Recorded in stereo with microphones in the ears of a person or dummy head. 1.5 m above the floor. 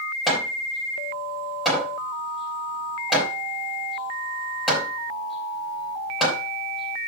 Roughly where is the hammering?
Centre.